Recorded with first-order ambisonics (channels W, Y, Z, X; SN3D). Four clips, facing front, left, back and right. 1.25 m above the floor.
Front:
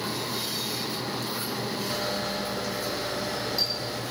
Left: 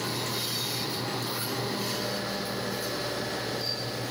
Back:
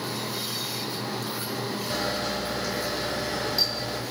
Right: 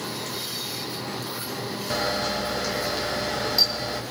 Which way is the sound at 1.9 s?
100° right.